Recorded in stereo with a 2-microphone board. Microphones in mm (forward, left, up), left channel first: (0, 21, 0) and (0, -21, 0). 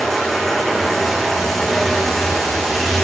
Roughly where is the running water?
Centre.